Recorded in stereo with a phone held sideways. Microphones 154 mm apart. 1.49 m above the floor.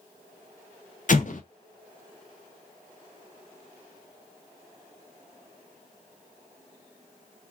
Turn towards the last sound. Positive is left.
turn(degrees=55)  # may be behind; listen again after turning